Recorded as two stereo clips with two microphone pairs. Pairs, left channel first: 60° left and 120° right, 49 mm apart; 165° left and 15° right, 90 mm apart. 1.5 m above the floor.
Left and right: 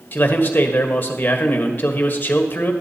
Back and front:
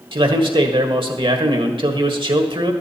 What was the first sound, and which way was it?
A man speaking, 5° left.